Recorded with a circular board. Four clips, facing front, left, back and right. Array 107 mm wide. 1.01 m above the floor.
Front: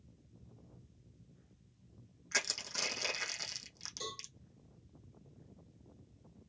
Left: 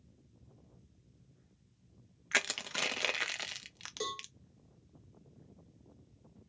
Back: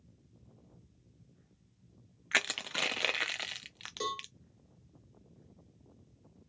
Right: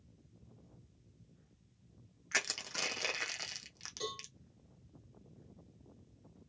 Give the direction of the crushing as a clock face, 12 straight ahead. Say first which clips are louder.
Left 4 dB, back 6 dB; 7 o'clock.